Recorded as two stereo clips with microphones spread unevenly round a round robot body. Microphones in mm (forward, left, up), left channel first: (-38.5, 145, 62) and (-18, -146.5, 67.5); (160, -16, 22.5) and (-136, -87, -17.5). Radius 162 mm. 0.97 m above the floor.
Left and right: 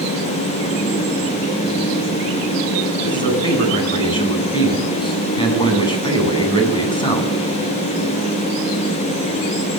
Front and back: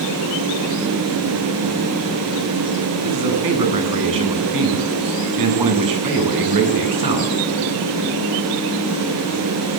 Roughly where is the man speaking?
Behind.